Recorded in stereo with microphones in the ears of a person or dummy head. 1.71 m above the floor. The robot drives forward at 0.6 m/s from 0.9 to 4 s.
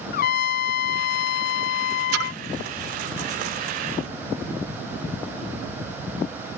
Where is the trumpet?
55° left (ahead or behind).